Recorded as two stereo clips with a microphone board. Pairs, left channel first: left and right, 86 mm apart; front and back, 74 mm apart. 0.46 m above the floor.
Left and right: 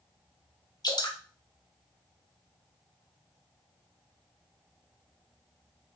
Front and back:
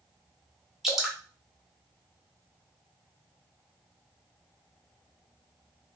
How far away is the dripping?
About 0.7 m.